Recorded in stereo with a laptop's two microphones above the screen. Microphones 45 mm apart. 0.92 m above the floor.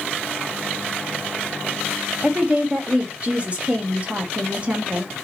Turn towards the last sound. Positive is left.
turn(degrees=-30)  # may be behind; listen again after turning